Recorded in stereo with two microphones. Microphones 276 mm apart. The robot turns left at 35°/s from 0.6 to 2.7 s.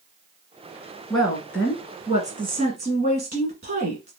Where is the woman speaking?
Straight ahead, 1.5 m; by 4.1 s 55° right, 1.5 m.